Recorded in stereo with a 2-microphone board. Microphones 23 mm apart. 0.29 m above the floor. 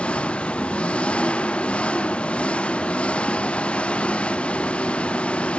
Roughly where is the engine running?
Left.